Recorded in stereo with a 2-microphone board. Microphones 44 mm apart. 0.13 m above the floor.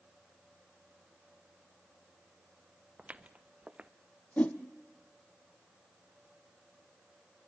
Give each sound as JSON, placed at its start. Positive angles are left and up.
{"t": 3.0, "sound": "footsteps", "side_deg": -25, "distance_m": 0.8}
{"t": 4.4, "sound": "a whoosh", "side_deg": 30, "distance_m": 1.2}